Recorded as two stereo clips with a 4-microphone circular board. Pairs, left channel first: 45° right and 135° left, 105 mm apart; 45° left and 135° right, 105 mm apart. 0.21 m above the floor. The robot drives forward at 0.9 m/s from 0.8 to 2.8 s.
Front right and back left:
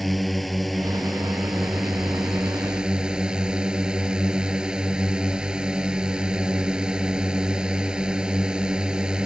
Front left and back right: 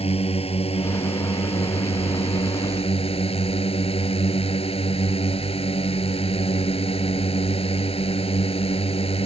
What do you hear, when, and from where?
0.0 s a drone: 45° left; by 9.3 s 55° left